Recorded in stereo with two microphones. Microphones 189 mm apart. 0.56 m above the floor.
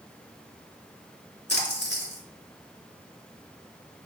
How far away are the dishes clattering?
I don't hear dishes clattering.